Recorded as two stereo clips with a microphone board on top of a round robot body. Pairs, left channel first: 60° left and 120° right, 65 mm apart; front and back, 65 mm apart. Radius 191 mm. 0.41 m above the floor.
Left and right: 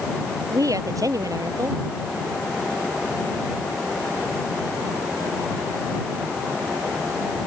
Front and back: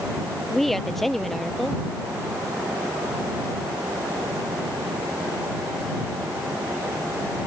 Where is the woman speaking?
85° right.